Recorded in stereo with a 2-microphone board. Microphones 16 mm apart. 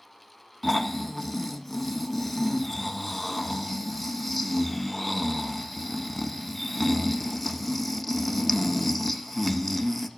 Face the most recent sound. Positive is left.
turn(degrees=10)  # may be behind; listen again after turning